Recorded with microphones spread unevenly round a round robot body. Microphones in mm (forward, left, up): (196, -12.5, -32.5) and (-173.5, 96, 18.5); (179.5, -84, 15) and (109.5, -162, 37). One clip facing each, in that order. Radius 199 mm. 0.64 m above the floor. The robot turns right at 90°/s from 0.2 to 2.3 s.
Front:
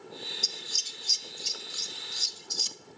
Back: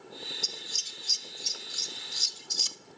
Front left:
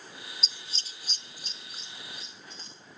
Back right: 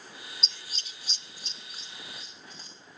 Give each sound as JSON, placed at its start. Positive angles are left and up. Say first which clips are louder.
{"t": 0.4, "sound": "scissors", "louder": "even, even", "azimuth_deg": -30, "distance_m": 0.5}